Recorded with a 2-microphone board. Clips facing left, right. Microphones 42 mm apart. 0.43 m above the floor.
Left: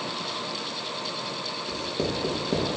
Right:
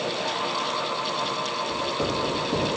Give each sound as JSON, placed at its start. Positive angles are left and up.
{"t": 1.7, "sound": "writing", "side_deg": 70, "distance_m": 2.5}